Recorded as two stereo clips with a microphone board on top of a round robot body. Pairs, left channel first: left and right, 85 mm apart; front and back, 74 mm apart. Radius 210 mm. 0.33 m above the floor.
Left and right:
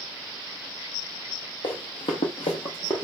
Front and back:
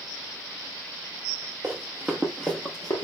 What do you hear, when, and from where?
1.6 s running footsteps: 120° left, 1.0 m; by 3.0 s 20° left, 0.6 m